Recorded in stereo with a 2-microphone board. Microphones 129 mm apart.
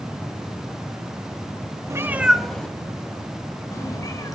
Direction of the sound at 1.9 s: 20° right (ahead or behind).